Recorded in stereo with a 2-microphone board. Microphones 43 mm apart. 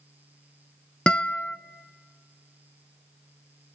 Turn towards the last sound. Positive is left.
turn(degrees=20)  # may be behind; listen again after turning